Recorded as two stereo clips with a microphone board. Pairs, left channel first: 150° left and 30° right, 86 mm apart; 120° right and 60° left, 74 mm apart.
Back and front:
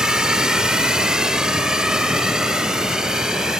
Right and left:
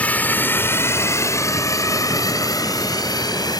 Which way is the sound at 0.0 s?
95° right.